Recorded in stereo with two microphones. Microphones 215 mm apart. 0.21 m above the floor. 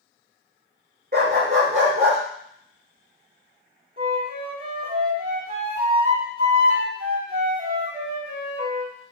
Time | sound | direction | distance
1.1 | a dog barking | 45° right (ahead or behind) | 1.0 m
4.0 | a flute | 45° right (ahead or behind) | 1.5 m